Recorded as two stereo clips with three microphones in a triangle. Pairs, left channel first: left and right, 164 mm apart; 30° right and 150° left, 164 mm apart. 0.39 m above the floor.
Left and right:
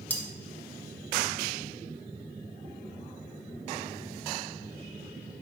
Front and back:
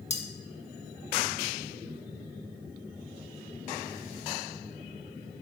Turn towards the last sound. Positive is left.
turn(degrees=10)